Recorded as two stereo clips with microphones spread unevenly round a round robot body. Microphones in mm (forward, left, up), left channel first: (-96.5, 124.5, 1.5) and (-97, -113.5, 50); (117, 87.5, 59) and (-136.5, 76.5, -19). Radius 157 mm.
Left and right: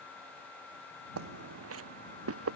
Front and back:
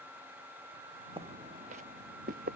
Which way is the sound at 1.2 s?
95° right.